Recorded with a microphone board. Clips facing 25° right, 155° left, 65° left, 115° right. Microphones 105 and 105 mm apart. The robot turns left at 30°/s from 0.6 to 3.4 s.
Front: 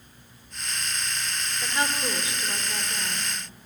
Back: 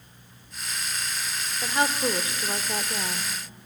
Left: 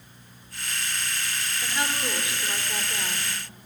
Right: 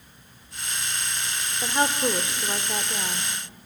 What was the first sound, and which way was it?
A woman speaking, 140° right.